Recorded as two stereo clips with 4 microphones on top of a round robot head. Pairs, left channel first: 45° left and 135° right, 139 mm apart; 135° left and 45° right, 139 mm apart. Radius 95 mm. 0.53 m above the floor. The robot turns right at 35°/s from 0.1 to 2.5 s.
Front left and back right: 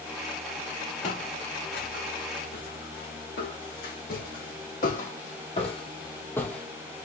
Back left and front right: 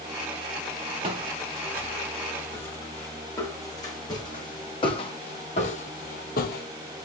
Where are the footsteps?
10° left, 3 m; by 6.7 s 130° left, 0.9 m.